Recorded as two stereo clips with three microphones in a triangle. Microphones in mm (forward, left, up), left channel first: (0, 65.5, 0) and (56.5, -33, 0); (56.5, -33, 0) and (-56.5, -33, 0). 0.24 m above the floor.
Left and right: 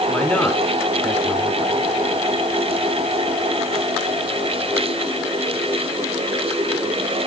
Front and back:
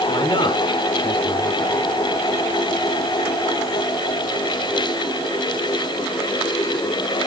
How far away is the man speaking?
About 5 m.